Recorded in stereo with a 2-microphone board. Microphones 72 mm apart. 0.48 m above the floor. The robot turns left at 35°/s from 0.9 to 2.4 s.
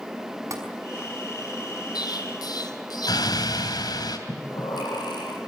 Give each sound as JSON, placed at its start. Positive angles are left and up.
{"t": 0.5, "sound": "tapping", "side_deg": -50, "distance_m": 5.5}
{"t": 1.9, "sound": "an explosion", "side_deg": 70, "distance_m": 3.0}
{"t": 4.3, "sound": "breathing", "side_deg": 80, "distance_m": 9.0}